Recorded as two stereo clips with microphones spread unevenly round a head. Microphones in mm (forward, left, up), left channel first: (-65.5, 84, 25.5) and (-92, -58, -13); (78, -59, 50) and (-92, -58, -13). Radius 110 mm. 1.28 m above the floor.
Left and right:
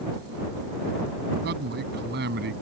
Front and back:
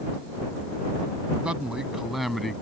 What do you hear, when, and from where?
1.4 s a man speaking: 95° right; by 2.6 s 85° right